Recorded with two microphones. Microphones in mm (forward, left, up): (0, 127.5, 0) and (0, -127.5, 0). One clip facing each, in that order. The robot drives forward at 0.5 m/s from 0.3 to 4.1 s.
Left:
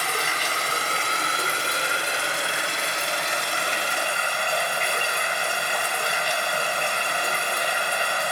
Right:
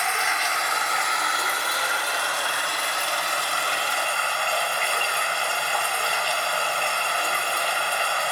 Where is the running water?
40° left (ahead or behind), 1.9 m; by 8.3 s 20° left (ahead or behind), 3.5 m.